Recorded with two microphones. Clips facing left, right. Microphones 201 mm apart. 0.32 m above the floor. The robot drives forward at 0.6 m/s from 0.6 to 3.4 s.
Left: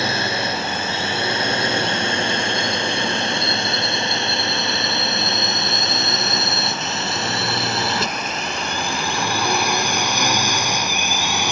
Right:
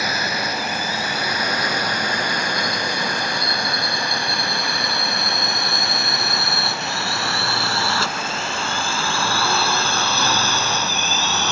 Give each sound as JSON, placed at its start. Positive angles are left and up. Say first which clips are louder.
{"t": 0.0, "sound": "a drone", "louder": "left 3 dB", "side_deg": 25}